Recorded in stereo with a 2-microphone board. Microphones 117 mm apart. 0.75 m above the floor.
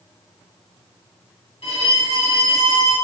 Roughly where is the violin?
Left.